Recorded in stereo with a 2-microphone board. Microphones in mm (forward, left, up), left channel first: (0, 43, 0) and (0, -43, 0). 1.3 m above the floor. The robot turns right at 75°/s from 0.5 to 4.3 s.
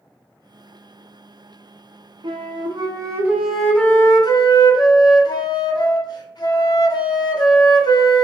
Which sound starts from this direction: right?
A flute, at 2.2 s.